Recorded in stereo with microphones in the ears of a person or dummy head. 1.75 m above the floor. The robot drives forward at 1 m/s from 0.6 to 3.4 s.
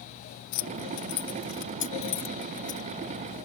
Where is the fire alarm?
I don't hear a fire alarm.